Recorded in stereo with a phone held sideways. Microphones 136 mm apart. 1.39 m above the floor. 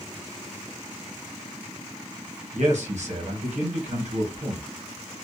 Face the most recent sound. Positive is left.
turn(degrees=-60)  # may be behind; listen again after turning